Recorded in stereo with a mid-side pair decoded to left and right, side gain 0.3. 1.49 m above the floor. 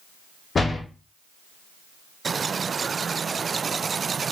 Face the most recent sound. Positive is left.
turn(degrees=50)